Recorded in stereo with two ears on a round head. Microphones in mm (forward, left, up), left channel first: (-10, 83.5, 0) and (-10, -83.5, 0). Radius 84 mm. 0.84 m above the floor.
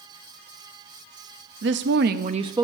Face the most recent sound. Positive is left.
turn(degrees=-15)  # may be behind; listen again after turning